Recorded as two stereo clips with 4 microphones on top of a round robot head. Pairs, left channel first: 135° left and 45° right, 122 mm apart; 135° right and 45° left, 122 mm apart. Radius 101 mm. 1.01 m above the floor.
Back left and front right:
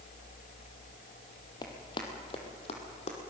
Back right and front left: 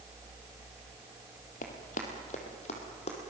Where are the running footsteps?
160° right, 2 m; by 3.2 s straight behind, 2.5 m.